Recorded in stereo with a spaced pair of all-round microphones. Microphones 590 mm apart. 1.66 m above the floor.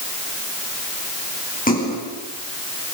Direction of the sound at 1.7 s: 15° left (ahead or behind).